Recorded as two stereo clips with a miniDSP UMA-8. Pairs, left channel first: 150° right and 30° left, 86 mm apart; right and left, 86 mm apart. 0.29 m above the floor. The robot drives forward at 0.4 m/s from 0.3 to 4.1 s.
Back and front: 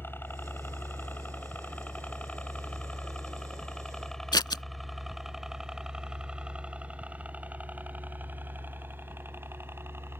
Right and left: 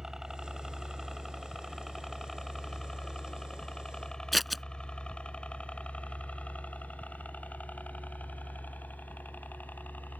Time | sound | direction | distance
0.0 | a helicopter | 170° left | ?
4.3 | scissors | straight behind | ?